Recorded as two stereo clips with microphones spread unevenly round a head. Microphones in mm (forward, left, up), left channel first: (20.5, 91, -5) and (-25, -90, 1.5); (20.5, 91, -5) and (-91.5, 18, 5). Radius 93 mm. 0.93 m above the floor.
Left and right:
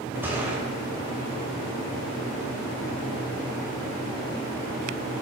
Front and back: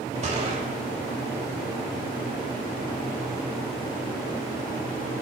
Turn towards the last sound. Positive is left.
turn(degrees=175)